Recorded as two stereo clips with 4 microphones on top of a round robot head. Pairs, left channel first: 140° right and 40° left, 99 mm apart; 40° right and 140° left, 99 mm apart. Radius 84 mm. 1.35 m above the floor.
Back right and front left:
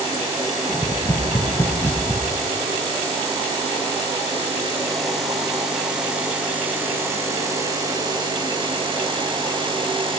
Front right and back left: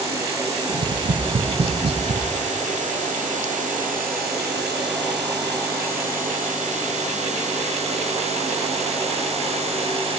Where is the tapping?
150° left, 1.1 m.